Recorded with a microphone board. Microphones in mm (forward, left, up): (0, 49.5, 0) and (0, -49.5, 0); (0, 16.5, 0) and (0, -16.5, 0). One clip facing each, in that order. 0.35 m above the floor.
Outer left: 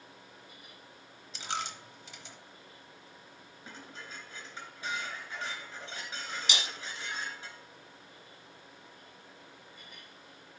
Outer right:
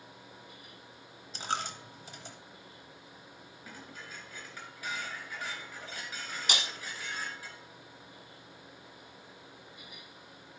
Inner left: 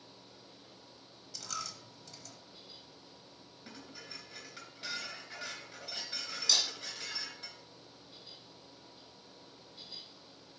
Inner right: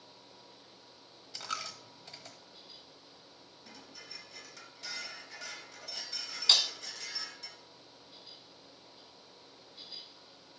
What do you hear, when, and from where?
1.3 s a dropped coin: 40° right (ahead or behind), 0.8 m
3.6 s dishes clattering: 25° left (ahead or behind), 3 m
6.5 s breaking glass: 50° right (ahead or behind), 1.1 m